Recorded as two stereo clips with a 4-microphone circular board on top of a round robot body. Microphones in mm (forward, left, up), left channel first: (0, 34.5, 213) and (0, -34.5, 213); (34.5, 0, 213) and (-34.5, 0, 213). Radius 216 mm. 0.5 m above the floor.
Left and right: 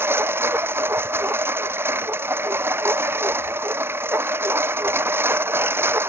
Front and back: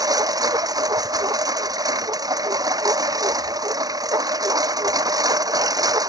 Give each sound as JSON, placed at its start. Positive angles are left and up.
{"t": 0.0, "sound": "a lawn mower", "azimuth_deg": -145}